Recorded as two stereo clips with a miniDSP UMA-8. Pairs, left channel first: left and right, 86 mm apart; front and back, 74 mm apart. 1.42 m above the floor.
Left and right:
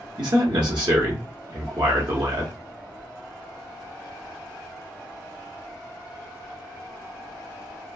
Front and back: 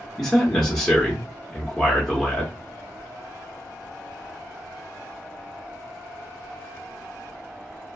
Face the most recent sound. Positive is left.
turn(degrees=-85)